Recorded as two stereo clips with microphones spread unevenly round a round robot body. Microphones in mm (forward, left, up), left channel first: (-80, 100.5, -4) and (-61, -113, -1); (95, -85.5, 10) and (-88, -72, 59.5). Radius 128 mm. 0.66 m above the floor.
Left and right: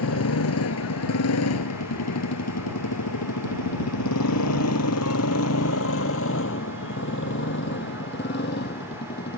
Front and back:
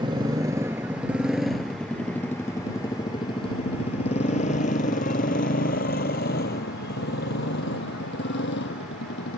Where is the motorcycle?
105° left; by 9.4 s 40° left.